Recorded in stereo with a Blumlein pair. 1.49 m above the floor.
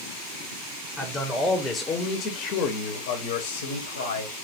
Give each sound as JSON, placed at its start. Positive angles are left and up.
{"t": 1.0, "sound": "a man speaking", "azimuth_deg": -5, "distance_m": 1.3}